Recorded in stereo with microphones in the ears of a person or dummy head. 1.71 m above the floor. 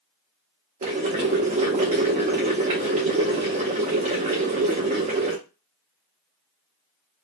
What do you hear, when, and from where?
0.8 s boiling: 30° right (ahead or behind), 0.7 m